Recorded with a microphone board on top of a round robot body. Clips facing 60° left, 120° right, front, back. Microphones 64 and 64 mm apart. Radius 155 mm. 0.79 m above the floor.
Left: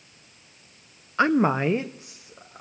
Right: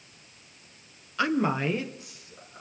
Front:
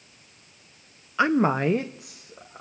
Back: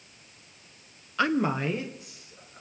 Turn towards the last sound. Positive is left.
turn(degrees=0)